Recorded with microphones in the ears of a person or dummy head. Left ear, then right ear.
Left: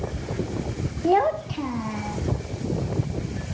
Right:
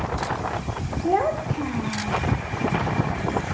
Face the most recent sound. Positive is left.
turn(degrees=10)  # may be behind; listen again after turning